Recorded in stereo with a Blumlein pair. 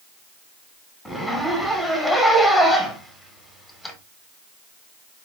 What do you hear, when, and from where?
1.1 s a zipper: straight ahead, 1.0 m